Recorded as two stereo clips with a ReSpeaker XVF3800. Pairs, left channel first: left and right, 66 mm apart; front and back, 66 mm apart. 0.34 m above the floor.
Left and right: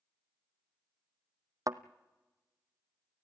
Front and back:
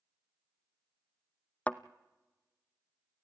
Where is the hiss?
I don't hear a hiss.